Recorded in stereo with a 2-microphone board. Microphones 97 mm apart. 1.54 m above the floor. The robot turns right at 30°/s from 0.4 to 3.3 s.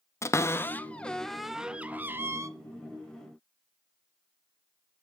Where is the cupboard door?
30° left (ahead or behind), 0.5 m; by 2.5 s 30° right (ahead or behind), 0.5 m.